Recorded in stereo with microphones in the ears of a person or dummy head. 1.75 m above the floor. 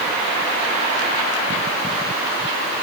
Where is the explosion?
No explosion in this recording.